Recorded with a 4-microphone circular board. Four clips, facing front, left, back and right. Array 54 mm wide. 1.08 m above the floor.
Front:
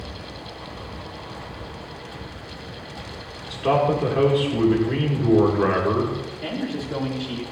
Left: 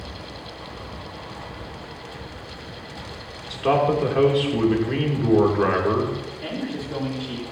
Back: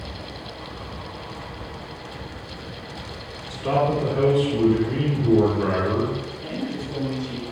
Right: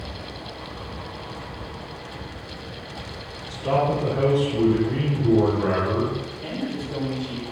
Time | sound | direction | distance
3.5 | a man speaking | 60° left | 2.5 m
6.4 | a man speaking | 30° left | 2.5 m